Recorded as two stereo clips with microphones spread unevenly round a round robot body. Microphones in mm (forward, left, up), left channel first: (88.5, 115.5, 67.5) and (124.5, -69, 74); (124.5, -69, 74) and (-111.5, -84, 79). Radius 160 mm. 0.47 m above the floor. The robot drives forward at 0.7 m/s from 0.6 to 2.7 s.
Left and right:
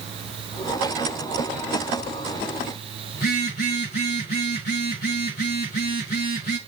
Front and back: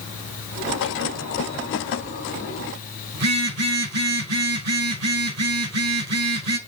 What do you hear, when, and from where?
3.1 s a phone buzzing: 160° left, 4 m